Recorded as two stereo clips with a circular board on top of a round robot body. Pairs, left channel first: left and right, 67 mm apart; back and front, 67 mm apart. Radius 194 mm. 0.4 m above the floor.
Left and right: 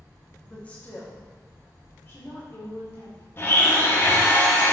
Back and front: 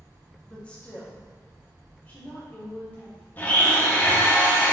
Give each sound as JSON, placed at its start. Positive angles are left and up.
{"t": 0.5, "sound": "a woman speaking", "azimuth_deg": 130, "distance_m": 1.4}
{"t": 3.4, "sound": "a blender", "azimuth_deg": 130, "distance_m": 1.2}